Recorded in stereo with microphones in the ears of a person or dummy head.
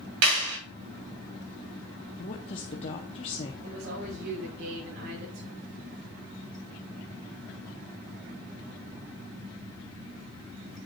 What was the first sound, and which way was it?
A clap, 80° right.